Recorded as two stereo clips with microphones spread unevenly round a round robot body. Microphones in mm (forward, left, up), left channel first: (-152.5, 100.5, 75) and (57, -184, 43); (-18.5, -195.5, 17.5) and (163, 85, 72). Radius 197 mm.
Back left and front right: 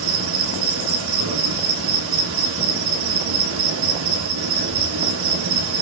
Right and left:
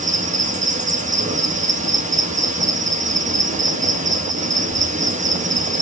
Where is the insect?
15° right, 1.8 m.